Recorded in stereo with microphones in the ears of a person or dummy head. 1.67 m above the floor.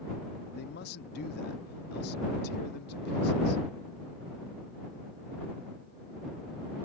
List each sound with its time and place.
0.5 s a man speaking: 65° left (ahead or behind)